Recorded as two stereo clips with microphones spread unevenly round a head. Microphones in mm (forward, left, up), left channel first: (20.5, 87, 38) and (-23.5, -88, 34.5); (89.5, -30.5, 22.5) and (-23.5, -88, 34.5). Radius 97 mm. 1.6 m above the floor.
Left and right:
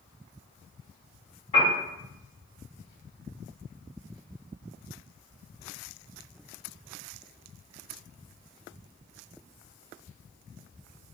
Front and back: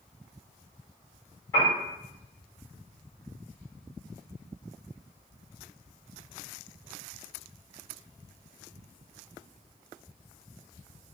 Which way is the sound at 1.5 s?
85° left.